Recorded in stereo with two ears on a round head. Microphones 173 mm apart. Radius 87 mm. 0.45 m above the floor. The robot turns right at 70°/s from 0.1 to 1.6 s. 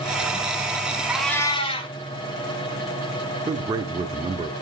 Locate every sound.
1.1 s a cat meowing: 10° right, 1.2 m; by 1.9 s 30° left, 1.2 m
3.5 s a man speaking: 20° right (ahead or behind), 0.8 m